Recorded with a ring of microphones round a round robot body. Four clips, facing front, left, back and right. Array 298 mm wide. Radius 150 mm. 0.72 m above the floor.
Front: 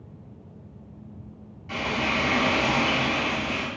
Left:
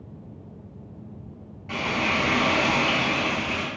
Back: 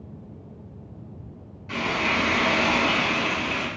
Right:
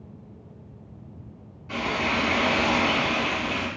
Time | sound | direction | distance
1.7 | frying | 100° left | 1.7 m